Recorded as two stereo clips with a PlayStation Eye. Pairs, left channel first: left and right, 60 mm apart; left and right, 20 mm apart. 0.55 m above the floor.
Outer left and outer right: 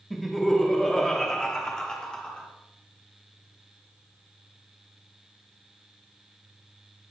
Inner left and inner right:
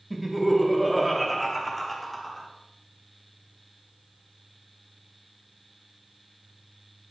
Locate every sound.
0.1 s laughter: centre (ahead or behind), 0.8 m; by 2.5 s 15° left (ahead or behind), 1.2 m